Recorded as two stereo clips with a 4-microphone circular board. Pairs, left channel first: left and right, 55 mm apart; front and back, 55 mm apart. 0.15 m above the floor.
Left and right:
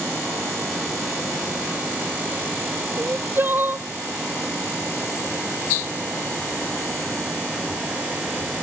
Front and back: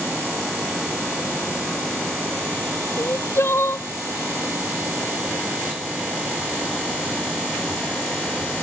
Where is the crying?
40° right.